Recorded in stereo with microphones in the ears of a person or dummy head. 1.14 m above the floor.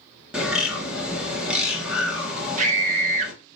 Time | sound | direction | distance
0.3 | a bird | centre (ahead or behind) | 1.2 m
2.6 | a scream | 40° right (ahead or behind) | 1.2 m